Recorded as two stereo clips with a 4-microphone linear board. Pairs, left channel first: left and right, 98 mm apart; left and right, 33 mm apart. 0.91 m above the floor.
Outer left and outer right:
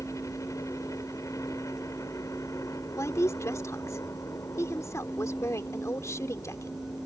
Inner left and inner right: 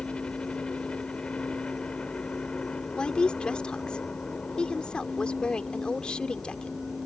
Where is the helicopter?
30° left (ahead or behind).